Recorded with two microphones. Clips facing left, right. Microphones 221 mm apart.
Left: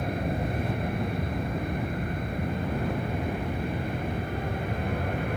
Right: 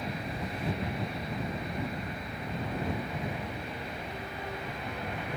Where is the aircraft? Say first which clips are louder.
Left 7 dB; 55° left (ahead or behind).